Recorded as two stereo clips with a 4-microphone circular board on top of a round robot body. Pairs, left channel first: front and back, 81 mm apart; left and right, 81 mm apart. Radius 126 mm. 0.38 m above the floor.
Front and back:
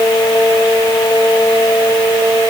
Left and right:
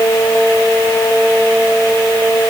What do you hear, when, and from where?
Only background noise.